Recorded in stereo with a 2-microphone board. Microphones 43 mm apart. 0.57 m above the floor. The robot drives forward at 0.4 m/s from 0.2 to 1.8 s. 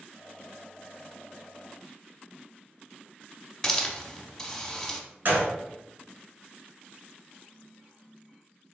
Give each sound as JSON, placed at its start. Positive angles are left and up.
{"t": 3.6, "sound": "a hiss", "side_deg": 10, "distance_m": 0.8}
{"t": 5.2, "sound": "a gunshot", "side_deg": -50, "distance_m": 1.7}